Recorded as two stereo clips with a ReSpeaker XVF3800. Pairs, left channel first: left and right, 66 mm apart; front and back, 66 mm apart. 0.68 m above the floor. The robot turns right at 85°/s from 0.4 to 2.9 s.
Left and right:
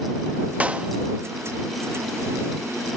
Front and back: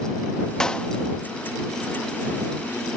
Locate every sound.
0.6 s a clap: 65° right; by 0.9 s 40° right